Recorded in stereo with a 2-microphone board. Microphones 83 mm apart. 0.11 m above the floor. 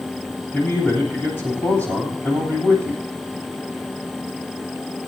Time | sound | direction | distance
0.5 | a man speaking | 25° left (ahead or behind) | 8.5 m